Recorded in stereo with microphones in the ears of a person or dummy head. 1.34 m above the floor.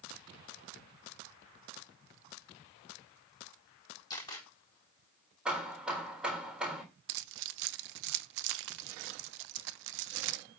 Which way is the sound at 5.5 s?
5° right (ahead or behind).